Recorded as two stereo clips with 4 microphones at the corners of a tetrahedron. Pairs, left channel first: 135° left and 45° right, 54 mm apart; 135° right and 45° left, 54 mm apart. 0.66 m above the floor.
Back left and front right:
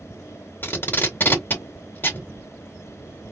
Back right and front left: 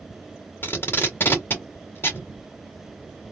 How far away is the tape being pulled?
About 1.9 m.